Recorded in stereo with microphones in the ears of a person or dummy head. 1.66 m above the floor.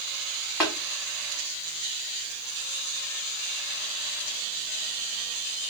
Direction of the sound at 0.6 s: Centre (ahead or behind).